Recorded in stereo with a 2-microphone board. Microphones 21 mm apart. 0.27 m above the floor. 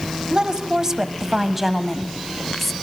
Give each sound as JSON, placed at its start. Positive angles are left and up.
{"t": 0.3, "sound": "a woman speaking", "side_deg": -40, "distance_m": 1.2}